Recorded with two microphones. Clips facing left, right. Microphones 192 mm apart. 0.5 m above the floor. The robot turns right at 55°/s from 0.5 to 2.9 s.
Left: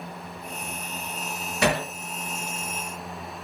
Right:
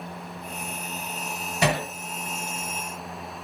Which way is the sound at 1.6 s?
20° right (ahead or behind).